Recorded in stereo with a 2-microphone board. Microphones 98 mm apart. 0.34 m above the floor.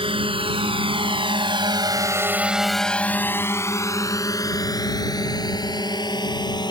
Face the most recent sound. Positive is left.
turn(degrees=50)  # may be behind; listen again after turning